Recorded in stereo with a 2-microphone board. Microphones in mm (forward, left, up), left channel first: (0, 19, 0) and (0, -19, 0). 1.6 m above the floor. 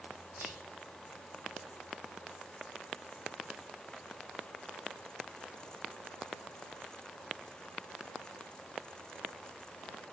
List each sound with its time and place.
0.4 s whispering: 70° right (ahead or behind), 7 m